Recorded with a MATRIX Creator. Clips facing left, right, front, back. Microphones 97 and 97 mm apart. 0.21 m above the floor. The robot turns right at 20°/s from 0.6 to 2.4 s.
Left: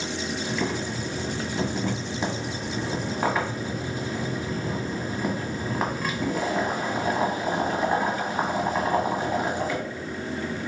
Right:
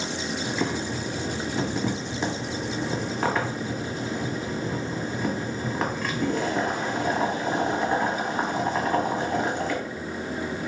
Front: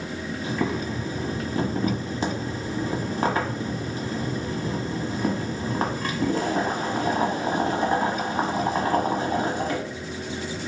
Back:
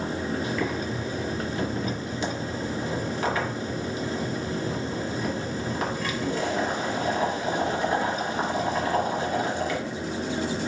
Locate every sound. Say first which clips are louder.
0.4 s boiling: right 1 dB, front 1 dB; 30° right, 1.2 m; by 9.8 s 10° left, 1.2 m